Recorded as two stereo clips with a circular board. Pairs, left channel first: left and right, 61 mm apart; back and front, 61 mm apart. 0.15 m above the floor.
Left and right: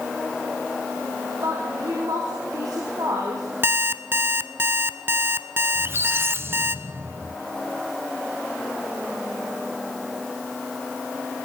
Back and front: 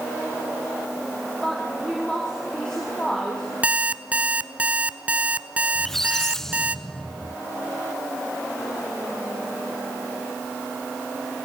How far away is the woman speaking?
About 5 m.